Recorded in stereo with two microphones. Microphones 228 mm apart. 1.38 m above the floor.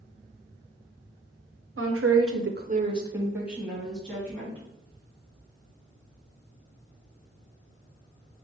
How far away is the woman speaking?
About 0.9 m.